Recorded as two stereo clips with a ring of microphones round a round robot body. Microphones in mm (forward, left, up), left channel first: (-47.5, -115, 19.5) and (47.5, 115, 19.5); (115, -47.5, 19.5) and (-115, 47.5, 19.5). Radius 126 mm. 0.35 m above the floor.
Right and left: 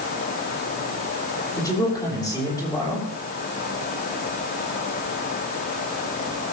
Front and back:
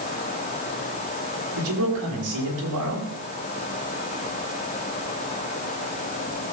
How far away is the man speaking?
About 6.5 m.